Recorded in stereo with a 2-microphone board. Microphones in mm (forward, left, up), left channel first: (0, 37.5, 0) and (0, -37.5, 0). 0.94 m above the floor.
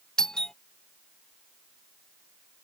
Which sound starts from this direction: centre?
A doorbell, at 0.2 s.